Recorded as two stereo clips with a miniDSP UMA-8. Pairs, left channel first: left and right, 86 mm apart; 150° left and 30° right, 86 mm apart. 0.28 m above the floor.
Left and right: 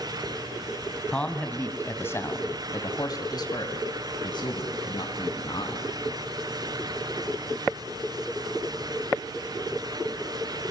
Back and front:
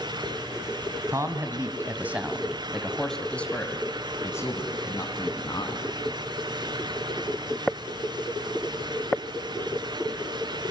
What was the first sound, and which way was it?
A man speaking, 15° left.